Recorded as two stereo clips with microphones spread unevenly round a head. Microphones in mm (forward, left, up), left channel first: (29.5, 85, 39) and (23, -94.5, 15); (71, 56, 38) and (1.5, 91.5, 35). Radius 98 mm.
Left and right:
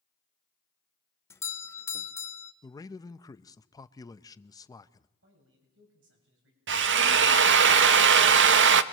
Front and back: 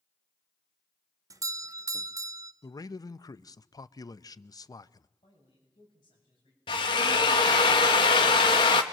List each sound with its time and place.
1.3 s a doorbell: 165° left, 0.9 m
2.6 s a man speaking: 15° left, 0.8 m
5.2 s a man speaking: 80° right, 7.5 m
6.7 s a drill: 75° right, 1.0 m